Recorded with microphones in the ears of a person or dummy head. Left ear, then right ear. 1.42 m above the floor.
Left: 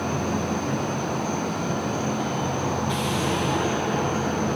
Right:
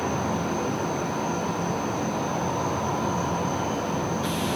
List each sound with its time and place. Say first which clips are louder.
0.0 s an insect: even; 10° right (ahead or behind), 2.5 m